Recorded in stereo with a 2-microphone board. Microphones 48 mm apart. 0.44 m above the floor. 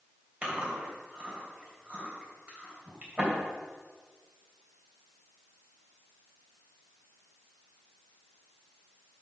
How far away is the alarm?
No alarm in this recording.